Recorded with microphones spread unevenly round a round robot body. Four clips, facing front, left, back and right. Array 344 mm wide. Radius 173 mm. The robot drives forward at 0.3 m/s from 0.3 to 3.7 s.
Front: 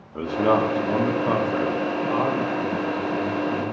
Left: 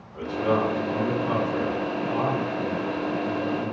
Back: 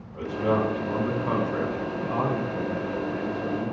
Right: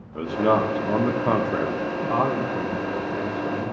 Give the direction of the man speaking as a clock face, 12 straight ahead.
1 o'clock.